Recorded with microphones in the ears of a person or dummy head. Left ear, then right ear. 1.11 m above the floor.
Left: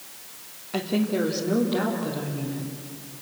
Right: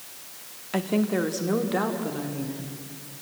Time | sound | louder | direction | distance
0.7 | a woman speaking | even | 75° right (ahead or behind) | 2 m